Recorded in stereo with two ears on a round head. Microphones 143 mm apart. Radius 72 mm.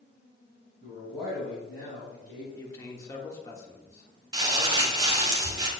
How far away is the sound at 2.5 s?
About 1.2 m.